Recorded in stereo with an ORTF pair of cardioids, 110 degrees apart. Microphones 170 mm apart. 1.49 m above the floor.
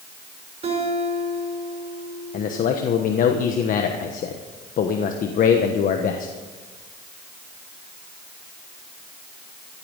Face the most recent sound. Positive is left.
turn(degrees=55)